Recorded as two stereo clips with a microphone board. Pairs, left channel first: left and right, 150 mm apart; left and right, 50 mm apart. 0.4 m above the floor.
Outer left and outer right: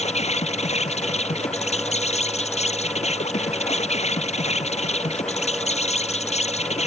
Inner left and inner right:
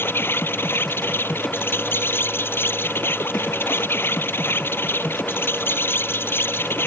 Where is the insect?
45° left (ahead or behind).